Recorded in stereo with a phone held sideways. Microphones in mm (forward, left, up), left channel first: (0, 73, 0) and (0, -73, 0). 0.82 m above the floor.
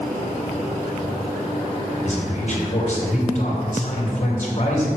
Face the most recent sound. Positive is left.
turn(degrees=50)  # may be behind; listen again after turning